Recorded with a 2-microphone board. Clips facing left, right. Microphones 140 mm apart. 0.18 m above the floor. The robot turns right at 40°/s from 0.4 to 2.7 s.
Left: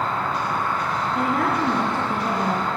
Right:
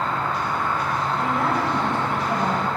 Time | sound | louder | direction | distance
0.0 | an insect | even | 170° left | 5.5 m
1.1 | a woman speaking | left 2 dB | 100° left | 2.5 m